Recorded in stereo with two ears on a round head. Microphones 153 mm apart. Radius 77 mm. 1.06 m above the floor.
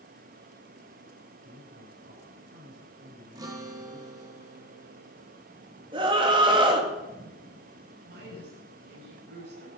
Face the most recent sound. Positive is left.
turn(degrees=-75)  # may be behind; listen again after turning